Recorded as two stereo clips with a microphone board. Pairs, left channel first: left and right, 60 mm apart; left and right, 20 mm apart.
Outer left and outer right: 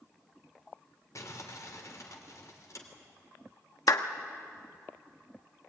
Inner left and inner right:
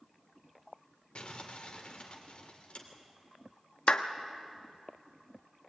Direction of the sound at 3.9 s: 65° left (ahead or behind).